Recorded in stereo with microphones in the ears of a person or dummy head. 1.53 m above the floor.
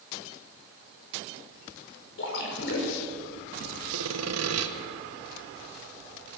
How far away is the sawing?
About 1.6 m.